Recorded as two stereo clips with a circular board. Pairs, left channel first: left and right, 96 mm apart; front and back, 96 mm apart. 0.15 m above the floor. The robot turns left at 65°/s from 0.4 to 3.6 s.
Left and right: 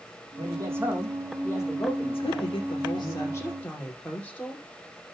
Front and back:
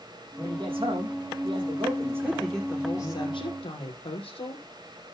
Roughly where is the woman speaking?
Left.